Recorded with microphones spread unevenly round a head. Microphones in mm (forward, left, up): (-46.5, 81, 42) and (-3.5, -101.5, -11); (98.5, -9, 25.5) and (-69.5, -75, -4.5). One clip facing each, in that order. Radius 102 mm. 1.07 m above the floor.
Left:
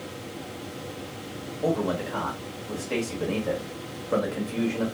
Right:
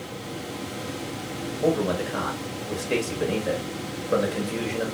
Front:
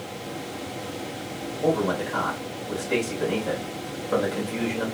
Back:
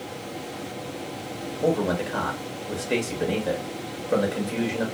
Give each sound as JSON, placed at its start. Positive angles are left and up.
{"t": 1.6, "sound": "a man speaking", "azimuth_deg": -125, "distance_m": 1.0}